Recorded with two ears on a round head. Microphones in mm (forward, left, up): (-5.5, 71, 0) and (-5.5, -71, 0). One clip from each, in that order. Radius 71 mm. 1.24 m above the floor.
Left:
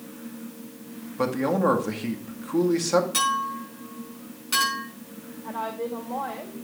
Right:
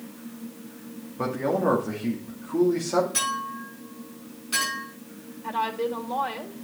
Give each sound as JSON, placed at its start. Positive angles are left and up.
{"t": 1.2, "sound": "a man speaking", "side_deg": 85, "distance_m": 2.0}
{"t": 3.1, "sound": "a clink", "side_deg": 35, "distance_m": 7.5}
{"t": 5.4, "sound": "a woman speaking", "side_deg": -80, "distance_m": 2.0}